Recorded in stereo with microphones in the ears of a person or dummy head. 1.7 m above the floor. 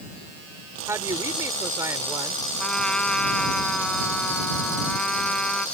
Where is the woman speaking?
20° right (ahead or behind).